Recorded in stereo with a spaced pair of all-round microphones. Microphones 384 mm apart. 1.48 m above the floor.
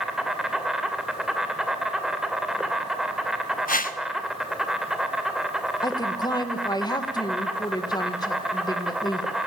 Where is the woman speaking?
10° left (ahead or behind), 1.6 m.